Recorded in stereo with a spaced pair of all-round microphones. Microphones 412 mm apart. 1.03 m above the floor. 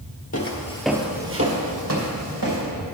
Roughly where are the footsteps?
Left.